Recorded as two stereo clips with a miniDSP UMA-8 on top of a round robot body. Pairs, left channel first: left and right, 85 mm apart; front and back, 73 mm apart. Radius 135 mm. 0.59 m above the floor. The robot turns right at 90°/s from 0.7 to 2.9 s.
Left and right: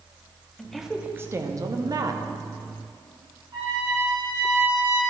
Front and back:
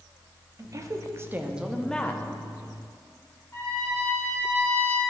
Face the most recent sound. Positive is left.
turn(degrees=-55)